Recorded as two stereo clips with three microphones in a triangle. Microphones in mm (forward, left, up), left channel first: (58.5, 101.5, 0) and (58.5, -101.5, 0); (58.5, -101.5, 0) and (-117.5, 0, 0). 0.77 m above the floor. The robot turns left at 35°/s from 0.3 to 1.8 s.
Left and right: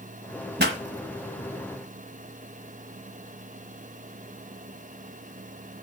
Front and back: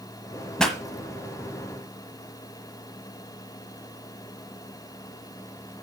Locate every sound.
0.6 s a pop: 115° right, 1.5 m; by 0.8 s 120° right, 1.5 m